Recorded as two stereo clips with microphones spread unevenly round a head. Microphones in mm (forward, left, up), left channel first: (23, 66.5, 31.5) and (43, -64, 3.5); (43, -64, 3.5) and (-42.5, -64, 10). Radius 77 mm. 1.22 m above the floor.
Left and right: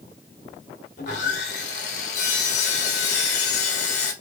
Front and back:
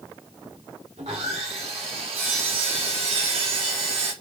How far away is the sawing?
About 0.7 m.